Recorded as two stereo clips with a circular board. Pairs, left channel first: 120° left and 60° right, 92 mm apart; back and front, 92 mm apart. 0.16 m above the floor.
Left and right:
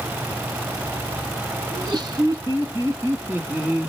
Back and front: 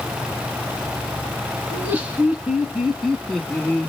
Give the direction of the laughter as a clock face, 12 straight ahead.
2 o'clock.